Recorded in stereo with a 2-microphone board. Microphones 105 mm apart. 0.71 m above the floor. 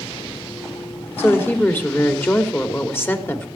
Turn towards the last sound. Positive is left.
turn(degrees=20)  # may be behind; listen again after turning